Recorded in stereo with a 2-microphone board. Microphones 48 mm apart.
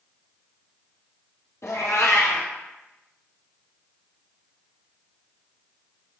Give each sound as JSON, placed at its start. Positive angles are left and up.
{"t": 1.6, "sound": "a cat meowing", "side_deg": 85, "distance_m": 1.0}